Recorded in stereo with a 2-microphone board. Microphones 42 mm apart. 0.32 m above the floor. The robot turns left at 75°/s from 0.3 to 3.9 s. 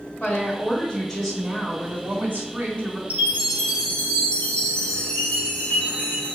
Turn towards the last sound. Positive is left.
turn(degrees=150)